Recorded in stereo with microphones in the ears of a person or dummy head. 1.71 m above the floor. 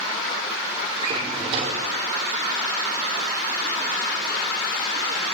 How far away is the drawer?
About 2.5 m.